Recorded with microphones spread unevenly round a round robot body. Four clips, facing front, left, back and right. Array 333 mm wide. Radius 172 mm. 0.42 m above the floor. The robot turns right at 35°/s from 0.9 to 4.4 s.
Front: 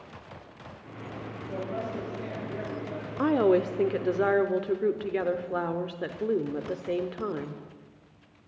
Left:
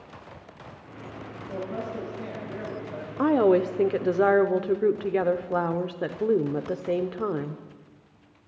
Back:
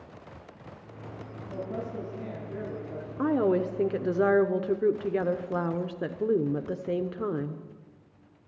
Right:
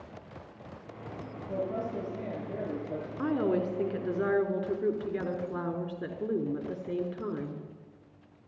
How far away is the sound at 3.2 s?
About 0.8 m.